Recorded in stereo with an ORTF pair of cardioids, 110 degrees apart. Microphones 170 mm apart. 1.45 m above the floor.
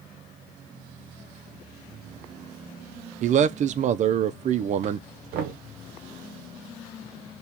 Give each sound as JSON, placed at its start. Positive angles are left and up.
{"t": 3.2, "sound": "a man speaking", "azimuth_deg": -45, "distance_m": 0.5}
{"t": 5.3, "sound": "knocking", "azimuth_deg": -65, "distance_m": 0.7}